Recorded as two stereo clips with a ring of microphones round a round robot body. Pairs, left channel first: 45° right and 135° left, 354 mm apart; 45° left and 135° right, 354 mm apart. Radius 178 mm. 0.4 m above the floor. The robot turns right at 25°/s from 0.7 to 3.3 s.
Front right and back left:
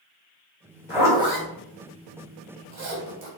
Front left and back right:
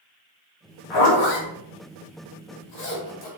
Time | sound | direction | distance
0.9 | a zipper | 50° left | 2.5 m